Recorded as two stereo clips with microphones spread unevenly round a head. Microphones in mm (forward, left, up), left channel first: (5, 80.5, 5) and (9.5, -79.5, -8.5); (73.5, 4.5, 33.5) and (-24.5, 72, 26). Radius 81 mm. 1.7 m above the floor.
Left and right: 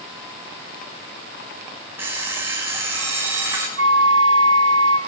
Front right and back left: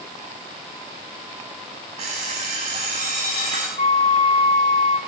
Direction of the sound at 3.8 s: 90° right.